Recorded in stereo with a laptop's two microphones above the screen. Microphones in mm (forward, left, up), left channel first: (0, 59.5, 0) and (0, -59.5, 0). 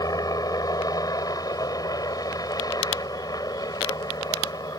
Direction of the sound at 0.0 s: 35° left (ahead or behind).